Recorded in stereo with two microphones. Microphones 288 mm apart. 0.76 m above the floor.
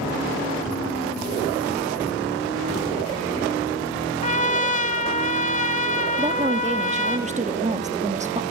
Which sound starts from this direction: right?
A woman speaking, at 6.2 s.